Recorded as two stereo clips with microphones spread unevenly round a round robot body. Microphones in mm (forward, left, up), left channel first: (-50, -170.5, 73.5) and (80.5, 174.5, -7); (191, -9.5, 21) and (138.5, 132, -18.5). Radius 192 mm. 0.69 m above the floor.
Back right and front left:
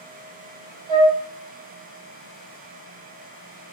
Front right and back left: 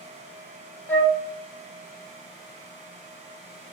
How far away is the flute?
About 0.7 m.